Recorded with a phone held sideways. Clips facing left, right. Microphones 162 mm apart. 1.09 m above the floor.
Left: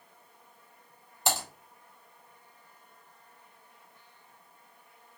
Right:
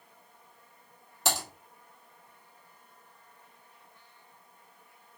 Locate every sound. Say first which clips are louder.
1.2 s typing on a keyboard: left 1 dB; 85° right, 2.0 m